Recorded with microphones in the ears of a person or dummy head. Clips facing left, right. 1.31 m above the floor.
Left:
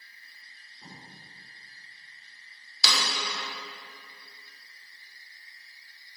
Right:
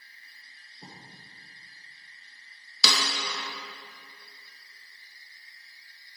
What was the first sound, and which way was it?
Writing, 40° right (ahead or behind).